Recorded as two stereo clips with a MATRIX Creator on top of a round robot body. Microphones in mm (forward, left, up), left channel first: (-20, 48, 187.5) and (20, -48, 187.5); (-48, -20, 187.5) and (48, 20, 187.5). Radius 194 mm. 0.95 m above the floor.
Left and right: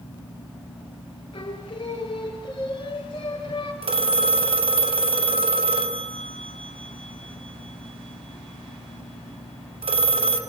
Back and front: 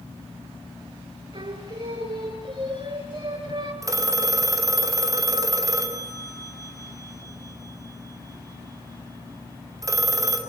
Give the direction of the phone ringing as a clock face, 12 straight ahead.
1 o'clock.